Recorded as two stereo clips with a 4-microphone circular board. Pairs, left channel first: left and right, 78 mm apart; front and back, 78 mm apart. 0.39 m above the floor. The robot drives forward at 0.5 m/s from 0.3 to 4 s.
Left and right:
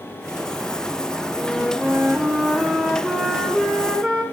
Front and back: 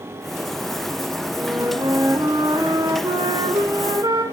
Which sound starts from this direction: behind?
A flute, at 1.4 s.